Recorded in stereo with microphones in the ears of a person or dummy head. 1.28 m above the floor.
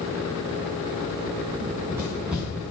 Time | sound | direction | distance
1.6 | running footsteps | 20° right (ahead or behind) | 2 m